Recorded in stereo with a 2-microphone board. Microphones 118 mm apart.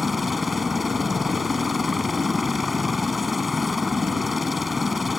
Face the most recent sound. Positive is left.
turn(degrees=0)  # may be behind; listen again after turning